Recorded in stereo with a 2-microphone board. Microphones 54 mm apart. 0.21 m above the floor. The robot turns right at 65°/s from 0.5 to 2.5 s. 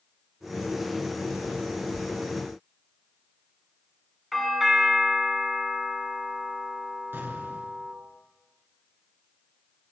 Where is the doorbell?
Centre (ahead or behind), 2.5 m.